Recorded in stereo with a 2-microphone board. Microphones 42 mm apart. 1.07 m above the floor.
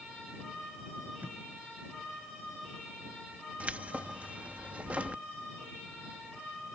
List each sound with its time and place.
1.2 s tape being pulled: 45° right (ahead or behind)
3.6 s keys jangling: 40° right (ahead or behind)